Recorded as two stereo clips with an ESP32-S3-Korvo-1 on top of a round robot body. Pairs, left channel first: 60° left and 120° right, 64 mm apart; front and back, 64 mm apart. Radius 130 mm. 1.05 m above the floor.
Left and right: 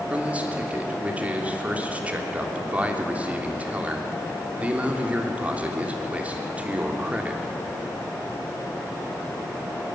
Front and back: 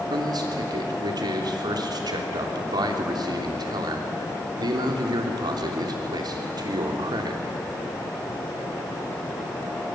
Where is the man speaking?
170° left, 3 m.